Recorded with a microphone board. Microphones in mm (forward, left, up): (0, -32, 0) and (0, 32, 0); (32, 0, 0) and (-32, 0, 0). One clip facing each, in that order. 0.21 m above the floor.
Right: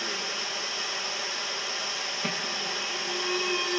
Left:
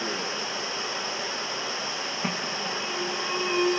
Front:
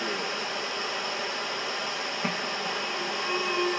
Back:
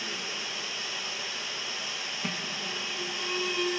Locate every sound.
0.0 s running water: 30° left, 1.1 m
2.2 s an alarm: 35° left, 1.4 m